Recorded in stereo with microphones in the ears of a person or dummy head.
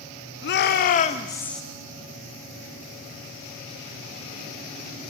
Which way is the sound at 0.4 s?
55° left (ahead or behind).